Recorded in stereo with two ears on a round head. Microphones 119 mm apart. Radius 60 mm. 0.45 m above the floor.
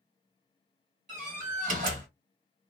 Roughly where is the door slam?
Right.